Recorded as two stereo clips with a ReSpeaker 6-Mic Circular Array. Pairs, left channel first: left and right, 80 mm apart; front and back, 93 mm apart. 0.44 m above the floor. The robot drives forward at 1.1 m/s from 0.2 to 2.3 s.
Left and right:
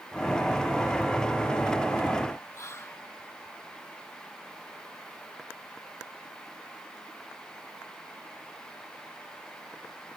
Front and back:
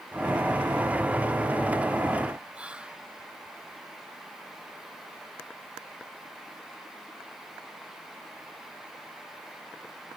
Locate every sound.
2.5 s whispering: 110° left